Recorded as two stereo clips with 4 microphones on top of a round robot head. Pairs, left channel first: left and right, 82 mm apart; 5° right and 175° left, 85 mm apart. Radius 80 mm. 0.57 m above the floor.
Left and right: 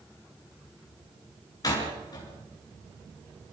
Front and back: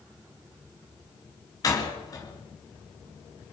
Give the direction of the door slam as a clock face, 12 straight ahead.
11 o'clock.